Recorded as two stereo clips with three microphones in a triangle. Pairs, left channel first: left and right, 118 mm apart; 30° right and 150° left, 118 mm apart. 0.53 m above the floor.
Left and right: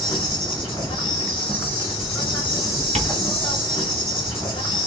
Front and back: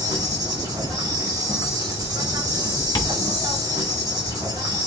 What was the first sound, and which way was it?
An insect, 110° left.